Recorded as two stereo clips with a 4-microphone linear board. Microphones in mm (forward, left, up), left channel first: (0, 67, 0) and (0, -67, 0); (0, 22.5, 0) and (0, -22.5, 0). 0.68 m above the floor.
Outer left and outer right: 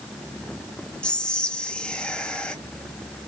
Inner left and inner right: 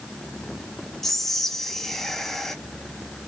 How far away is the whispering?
About 0.5 m.